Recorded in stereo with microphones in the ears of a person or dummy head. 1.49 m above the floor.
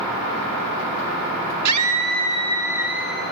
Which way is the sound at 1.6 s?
85° right.